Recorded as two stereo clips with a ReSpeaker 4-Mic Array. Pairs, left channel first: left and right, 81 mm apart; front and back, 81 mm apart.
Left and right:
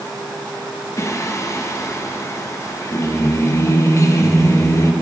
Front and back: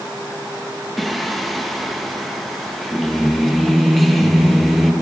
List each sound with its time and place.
1.0 s singing: 90° left, 0.7 m